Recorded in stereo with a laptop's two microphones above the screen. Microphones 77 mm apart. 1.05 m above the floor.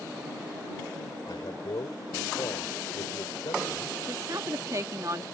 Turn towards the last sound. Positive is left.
turn(degrees=-45)  # may be behind; listen again after turning